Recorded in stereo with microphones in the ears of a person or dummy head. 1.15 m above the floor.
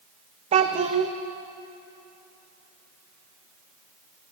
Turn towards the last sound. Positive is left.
turn(degrees=-35)  # may be behind; listen again after turning